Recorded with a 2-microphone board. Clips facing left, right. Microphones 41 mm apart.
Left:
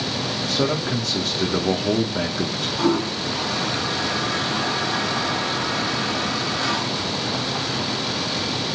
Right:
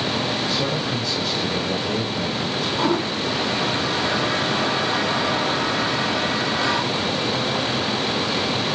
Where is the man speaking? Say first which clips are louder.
Left 1 dB; 65° left (ahead or behind), 2.0 m.